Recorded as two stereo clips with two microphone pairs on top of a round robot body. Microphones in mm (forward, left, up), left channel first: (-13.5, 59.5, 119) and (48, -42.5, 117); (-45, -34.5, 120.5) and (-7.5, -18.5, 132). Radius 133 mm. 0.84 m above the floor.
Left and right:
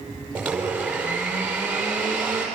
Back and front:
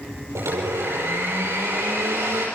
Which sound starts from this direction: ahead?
A blender, at 0.3 s.